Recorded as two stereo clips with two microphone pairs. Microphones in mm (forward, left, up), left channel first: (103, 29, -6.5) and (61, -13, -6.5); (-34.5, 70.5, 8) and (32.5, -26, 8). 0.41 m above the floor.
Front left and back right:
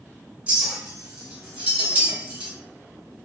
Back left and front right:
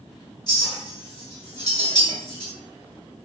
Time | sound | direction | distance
0.5 | a clink | 165° left | 1.1 m